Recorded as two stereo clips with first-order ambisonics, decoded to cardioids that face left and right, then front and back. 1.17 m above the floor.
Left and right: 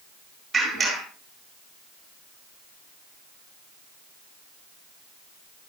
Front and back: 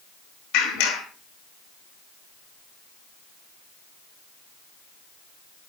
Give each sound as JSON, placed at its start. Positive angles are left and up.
{"t": 0.5, "sound": "a clap", "azimuth_deg": -10, "distance_m": 10.0}